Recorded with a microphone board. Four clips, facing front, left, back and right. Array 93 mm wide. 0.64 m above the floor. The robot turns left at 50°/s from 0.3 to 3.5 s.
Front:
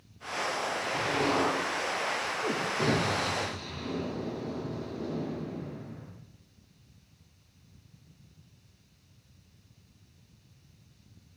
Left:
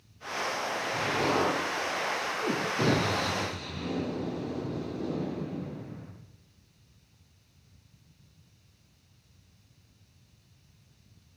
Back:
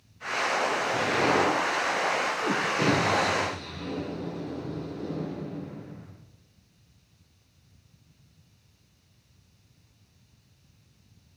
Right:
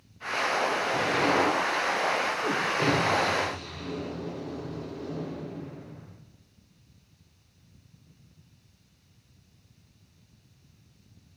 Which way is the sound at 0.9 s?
145° right.